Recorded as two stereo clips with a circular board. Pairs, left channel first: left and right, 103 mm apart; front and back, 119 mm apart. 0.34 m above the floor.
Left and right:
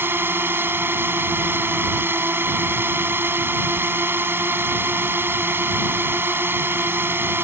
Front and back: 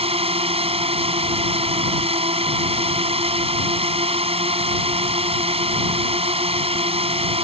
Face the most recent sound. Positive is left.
turn(degrees=-155)